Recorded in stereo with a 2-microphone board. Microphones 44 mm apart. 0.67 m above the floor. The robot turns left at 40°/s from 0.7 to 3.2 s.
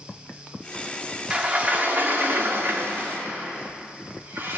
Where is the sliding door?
30° right, 1.4 m; by 4.6 s 105° right, 1.4 m.